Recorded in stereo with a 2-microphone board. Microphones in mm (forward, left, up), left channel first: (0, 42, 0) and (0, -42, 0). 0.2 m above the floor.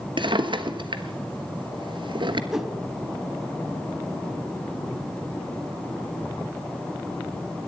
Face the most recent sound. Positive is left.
turn(degrees=-5)  # may be behind; listen again after turning